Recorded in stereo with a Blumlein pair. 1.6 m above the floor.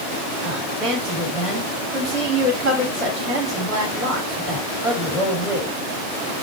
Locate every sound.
0.4 s a woman speaking: 30° right, 3 m